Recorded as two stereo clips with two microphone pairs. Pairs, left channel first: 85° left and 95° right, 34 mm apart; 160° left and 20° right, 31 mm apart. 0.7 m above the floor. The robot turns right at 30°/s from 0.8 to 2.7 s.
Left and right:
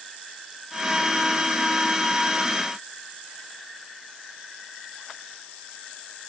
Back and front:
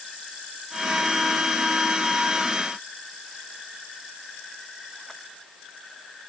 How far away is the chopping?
No chopping in this recording.